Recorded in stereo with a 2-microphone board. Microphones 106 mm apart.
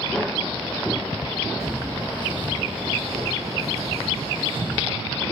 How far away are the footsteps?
About 3.5 m.